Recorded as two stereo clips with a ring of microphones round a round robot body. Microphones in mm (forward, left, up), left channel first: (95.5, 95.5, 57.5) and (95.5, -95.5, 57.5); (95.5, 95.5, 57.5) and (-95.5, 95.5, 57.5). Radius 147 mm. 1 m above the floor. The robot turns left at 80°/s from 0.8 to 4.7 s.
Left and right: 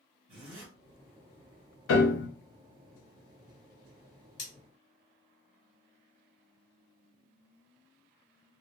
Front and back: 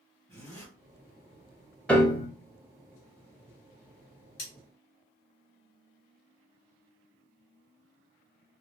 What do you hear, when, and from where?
0.3 s a zipper: 90° right, 1.6 m
1.9 s a piano: 85° left, 0.7 m; by 2.3 s 55° left, 0.7 m
4.4 s cutlery clinking: 40° left, 1.6 m; by 4.5 s 30° left, 1.6 m